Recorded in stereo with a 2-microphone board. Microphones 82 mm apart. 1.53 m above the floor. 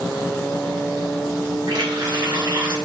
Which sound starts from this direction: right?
A running tap, at 1.7 s.